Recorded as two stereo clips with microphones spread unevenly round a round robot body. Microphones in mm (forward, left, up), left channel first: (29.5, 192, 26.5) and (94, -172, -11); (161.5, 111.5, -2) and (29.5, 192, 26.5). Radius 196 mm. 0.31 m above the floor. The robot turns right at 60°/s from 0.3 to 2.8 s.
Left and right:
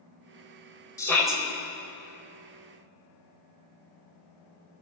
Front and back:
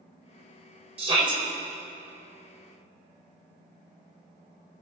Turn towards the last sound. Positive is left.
turn(degrees=-65)